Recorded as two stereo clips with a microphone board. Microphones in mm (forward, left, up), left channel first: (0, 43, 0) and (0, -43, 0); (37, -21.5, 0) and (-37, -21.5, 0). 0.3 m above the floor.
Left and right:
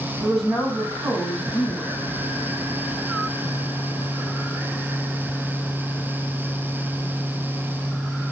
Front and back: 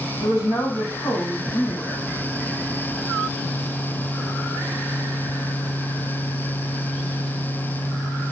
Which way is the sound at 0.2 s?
5° right.